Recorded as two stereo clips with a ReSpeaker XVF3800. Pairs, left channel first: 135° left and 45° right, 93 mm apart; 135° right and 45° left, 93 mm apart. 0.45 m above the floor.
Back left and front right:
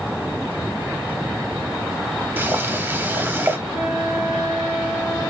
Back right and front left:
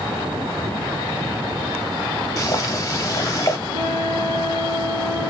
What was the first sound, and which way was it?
Boiling, 105° right.